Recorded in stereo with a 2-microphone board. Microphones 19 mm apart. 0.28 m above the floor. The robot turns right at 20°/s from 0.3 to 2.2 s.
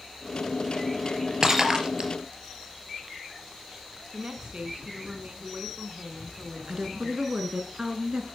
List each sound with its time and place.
1.4 s breaking glass: 30° right (ahead or behind), 3.5 m; by 2.1 s 45° right (ahead or behind), 3.5 m
4.1 s a woman speaking: 55° right (ahead or behind), 2.5 m
6.7 s a woman speaking: 45° right (ahead or behind), 3 m